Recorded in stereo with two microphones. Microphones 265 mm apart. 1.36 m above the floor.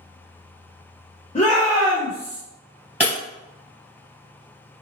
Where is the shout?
25° left (ahead or behind), 0.8 m; by 2.4 s 50° right (ahead or behind), 0.9 m.